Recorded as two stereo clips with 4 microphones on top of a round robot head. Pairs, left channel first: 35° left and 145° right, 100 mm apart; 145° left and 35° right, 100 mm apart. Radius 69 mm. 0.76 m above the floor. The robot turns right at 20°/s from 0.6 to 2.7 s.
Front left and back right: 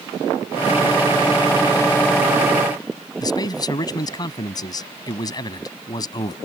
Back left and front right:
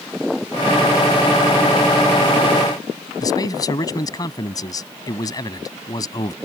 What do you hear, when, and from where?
3.2 s a man speaking: 90° left